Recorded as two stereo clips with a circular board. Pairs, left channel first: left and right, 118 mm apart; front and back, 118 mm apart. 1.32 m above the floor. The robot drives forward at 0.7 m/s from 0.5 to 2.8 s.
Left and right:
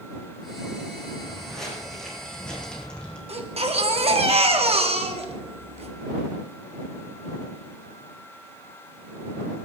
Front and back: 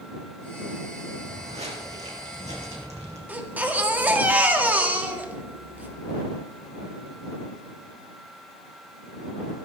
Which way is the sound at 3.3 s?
105° right.